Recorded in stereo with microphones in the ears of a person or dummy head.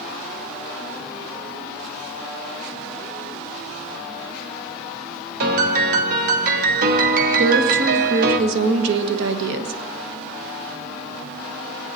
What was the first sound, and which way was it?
A piano, 55° right (ahead or behind).